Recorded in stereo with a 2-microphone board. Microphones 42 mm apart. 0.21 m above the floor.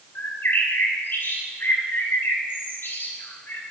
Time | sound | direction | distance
0.1 | a bird | 60° left (ahead or behind) | 7 m